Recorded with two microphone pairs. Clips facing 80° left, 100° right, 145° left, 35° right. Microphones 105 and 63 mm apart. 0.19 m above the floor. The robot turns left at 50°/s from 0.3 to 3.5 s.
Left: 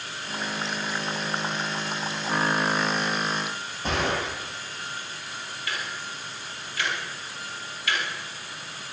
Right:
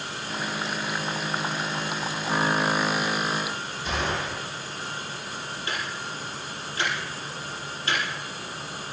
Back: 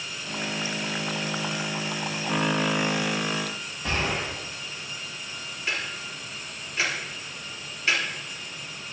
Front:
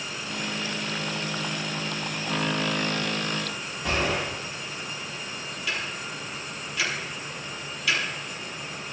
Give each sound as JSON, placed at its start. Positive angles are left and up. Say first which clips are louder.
{"t": 3.8, "sound": "a gunshot", "louder": "left 2 dB, front 1 dB", "azimuth_deg": 55, "distance_m": 8.0}
{"t": 5.7, "sound": "ticking", "louder": "right 1 dB, back 1 dB", "azimuth_deg": -155, "distance_m": 4.5}